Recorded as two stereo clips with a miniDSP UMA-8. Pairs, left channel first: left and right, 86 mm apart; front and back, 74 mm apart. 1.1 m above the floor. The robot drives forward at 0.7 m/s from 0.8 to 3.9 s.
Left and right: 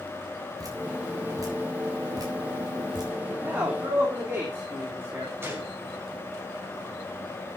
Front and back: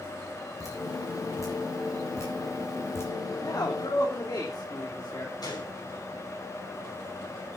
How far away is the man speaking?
About 3.5 m.